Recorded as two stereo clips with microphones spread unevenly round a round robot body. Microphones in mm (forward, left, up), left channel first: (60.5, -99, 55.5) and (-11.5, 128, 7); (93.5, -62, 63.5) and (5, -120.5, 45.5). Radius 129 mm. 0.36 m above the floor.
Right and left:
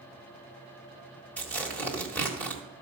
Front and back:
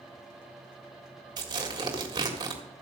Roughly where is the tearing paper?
Behind.